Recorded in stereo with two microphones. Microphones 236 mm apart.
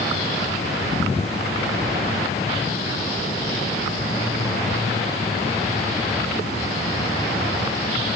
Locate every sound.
Only background noise.